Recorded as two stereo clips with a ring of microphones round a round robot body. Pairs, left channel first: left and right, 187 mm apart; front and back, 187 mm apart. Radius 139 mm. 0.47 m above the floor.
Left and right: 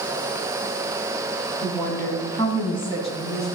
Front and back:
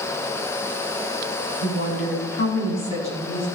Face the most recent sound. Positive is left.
turn(degrees=35)